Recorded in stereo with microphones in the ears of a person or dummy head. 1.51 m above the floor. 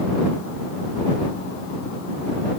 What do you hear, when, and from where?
Only background noise.